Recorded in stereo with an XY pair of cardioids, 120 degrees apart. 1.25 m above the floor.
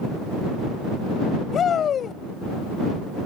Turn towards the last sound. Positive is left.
turn(degrees=45)